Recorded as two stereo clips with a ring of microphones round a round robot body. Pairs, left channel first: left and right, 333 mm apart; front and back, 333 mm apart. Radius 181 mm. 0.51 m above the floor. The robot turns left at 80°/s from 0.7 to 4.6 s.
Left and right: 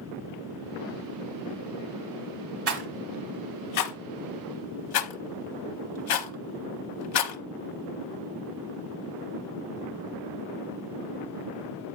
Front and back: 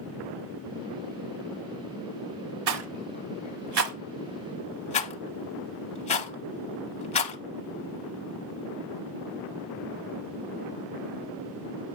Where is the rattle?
135° right, 0.9 m; by 7.4 s 70° left, 0.9 m.